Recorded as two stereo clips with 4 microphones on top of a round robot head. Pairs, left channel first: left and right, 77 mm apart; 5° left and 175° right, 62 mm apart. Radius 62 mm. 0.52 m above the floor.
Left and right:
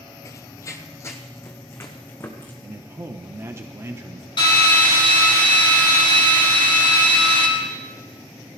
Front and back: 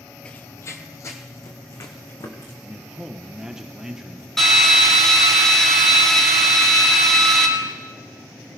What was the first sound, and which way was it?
Running footsteps, 65° left.